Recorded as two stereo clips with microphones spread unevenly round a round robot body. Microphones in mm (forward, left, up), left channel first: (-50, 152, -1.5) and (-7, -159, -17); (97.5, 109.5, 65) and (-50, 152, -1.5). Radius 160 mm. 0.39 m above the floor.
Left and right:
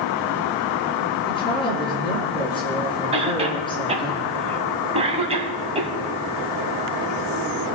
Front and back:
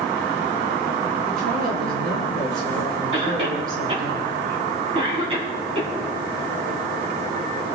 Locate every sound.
1.3 s a woman speaking: 175° left, 5.5 m
3.1 s a cough: 150° right, 2.5 m